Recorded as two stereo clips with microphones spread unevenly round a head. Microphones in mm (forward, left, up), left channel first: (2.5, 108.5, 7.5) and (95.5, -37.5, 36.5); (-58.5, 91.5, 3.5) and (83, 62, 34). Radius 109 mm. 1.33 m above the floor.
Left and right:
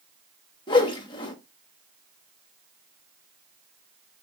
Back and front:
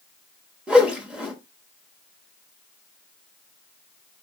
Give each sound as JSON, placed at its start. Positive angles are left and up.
{"t": 0.7, "sound": "a whoosh", "azimuth_deg": 60, "distance_m": 0.9}